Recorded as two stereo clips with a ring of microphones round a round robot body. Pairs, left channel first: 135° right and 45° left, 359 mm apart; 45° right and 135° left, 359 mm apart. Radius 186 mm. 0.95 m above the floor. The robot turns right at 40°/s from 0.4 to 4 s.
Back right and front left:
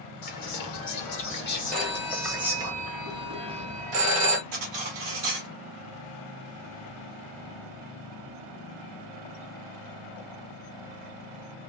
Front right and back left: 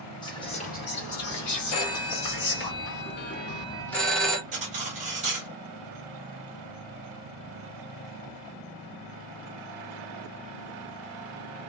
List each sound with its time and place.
0.2 s whispering: 120° right, 1.4 m; by 2.7 s 30° right, 1.4 m
1.7 s a phone ringing: 50° right, 1.1 m; by 4.4 s 45° left, 1.1 m
4.5 s cutlery clinking: 65° left, 1.6 m